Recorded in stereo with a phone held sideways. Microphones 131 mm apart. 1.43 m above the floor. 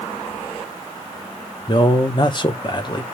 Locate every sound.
1.7 s a man speaking: 35° left (ahead or behind), 0.9 m